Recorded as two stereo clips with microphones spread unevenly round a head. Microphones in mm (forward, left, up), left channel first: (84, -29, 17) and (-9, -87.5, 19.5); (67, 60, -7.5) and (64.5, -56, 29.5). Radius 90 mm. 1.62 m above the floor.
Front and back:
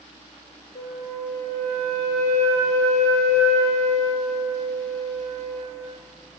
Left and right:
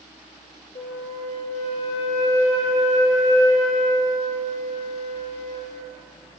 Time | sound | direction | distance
0.8 | a flute | 75° left | 5.5 m